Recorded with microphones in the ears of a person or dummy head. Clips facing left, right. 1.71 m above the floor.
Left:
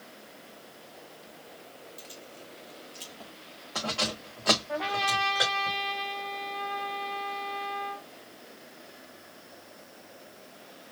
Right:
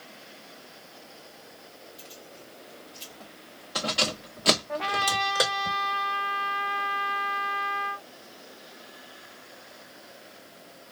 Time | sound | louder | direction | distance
2.0 | keys jangling | even | 40° left (ahead or behind) | 1.4 m
4.7 | a trumpet | right 1 dB | centre (ahead or behind) | 0.6 m